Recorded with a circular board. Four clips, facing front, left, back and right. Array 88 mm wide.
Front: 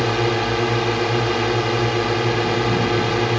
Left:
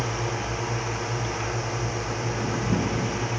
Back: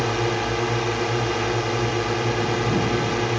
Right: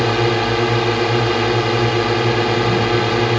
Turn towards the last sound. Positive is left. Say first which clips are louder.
# right 13 dB, front 3 dB
turn(degrees=-75)